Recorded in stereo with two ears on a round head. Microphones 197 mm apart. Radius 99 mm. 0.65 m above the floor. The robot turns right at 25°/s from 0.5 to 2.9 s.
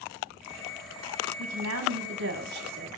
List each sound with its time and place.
1.4 s a woman speaking: 80° right, 5.5 m; by 2.9 s 45° right, 5.5 m